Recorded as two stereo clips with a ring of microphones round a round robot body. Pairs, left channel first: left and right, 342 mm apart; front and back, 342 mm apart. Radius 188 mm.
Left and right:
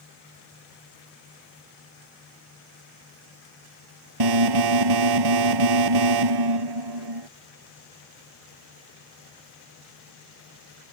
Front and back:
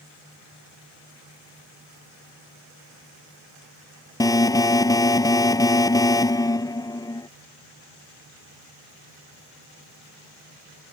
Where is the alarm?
80° right.